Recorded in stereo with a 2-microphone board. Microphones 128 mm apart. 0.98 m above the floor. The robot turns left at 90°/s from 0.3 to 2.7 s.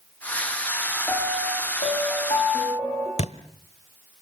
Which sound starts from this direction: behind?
A piano, at 1.1 s.